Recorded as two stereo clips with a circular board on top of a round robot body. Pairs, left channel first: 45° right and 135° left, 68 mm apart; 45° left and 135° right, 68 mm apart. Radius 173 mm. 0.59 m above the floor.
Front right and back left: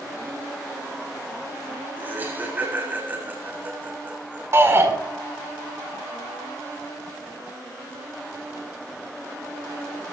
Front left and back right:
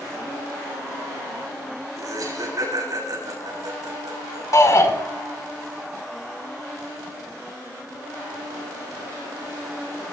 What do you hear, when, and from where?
2.0 s laughter: 165° right, 7 m
4.5 s a shout: 85° left, 5.5 m